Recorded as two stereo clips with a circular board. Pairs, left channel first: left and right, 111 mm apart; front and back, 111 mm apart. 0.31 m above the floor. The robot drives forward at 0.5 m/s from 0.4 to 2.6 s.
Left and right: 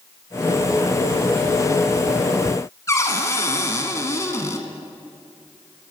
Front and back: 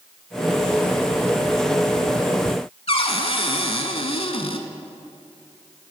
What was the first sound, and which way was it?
A cupboard door, 30° left.